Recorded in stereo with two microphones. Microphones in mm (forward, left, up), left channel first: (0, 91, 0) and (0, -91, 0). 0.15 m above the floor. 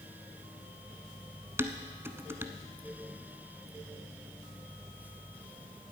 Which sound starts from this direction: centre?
Dishes clattering, at 1.6 s.